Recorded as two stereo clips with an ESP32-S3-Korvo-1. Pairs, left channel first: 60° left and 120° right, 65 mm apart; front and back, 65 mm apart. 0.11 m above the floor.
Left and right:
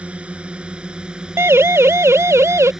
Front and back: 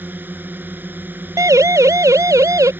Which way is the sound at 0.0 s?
170° right.